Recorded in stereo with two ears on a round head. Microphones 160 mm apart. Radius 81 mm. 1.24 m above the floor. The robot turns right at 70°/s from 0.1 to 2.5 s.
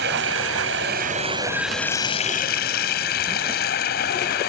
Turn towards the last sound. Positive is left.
turn(degrees=55)